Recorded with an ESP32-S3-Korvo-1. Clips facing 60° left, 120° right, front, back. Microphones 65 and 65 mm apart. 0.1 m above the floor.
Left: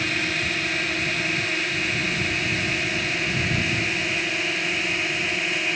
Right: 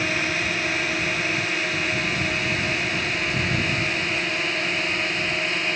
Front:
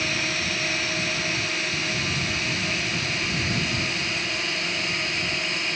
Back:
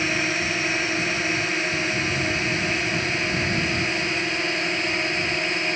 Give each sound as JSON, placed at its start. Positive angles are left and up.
{"t": 0.0, "sound": "a drone", "azimuth_deg": 155}